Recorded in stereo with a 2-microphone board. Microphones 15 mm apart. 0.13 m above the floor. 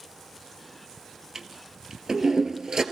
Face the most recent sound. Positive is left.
turn(degrees=-35)  # may be behind; listen again after turning